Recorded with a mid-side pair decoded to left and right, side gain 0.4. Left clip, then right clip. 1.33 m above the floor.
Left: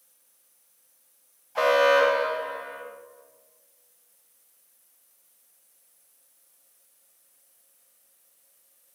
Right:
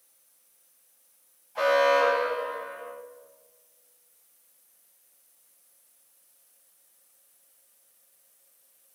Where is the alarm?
55° left, 2.5 m.